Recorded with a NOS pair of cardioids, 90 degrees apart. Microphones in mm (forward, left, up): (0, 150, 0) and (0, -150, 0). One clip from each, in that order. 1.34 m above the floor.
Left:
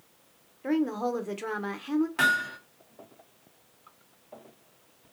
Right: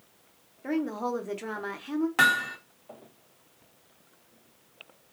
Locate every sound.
0.6 s a woman speaking: 10° left, 0.8 m
2.2 s hammering: 35° right, 1.1 m